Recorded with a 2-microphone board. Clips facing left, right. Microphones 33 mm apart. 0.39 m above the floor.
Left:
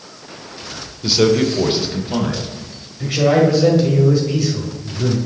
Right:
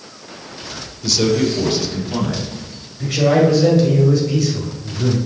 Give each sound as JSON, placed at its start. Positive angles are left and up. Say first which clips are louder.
{"t": 1.0, "sound": "a man speaking", "louder": "left 2 dB", "side_deg": 25, "distance_m": 0.9}
{"t": 3.0, "sound": "a man speaking", "louder": "even", "side_deg": 10, "distance_m": 2.0}